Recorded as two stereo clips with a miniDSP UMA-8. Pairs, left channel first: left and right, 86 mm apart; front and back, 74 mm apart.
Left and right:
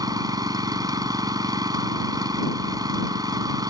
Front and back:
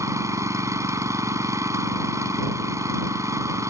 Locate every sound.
0.0 s an engine running: 130° right